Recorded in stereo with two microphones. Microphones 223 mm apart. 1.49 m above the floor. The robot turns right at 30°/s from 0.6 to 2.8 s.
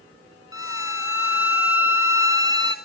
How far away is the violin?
About 1.1 m.